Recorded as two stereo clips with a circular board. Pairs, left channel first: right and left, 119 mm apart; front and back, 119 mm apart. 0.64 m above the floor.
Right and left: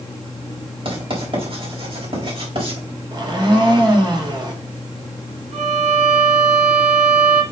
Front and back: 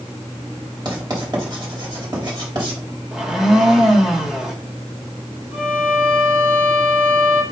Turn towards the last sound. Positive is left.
turn(degrees=105)